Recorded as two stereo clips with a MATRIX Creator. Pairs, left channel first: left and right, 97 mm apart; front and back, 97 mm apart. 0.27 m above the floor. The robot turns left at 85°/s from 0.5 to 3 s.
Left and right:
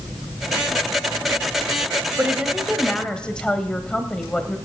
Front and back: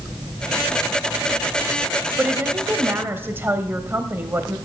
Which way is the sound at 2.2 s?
130° right.